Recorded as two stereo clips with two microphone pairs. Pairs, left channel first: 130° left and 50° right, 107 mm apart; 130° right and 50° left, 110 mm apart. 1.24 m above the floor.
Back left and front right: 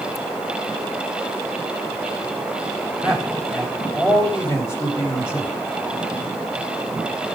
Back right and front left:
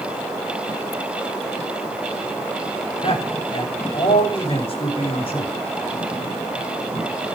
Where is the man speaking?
175° right, 5.5 m.